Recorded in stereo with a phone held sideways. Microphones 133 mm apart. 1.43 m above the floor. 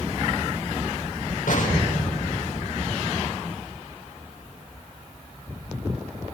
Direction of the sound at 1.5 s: 90° left.